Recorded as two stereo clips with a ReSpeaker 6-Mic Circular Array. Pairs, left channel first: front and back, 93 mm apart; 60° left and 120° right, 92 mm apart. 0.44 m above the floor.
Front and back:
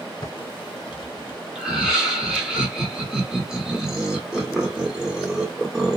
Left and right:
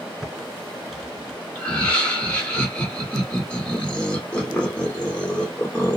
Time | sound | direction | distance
0.2 | typing on a keyboard | 30° right | 0.9 m
1.6 | laughter | 110° left | 1.2 m